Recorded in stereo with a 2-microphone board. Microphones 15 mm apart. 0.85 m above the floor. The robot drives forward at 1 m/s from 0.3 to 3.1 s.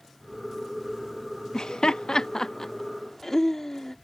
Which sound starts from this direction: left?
Laughter, at 1.5 s.